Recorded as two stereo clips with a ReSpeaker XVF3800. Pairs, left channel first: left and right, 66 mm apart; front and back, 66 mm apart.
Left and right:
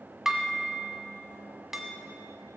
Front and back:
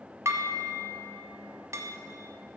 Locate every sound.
0.2 s dishes clattering: 170° right, 1.0 m